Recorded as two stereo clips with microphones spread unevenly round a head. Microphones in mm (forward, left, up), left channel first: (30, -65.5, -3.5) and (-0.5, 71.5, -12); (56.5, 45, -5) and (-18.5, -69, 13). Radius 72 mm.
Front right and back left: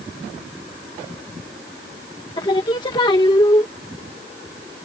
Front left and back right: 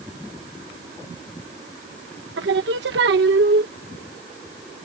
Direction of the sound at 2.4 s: 140° right.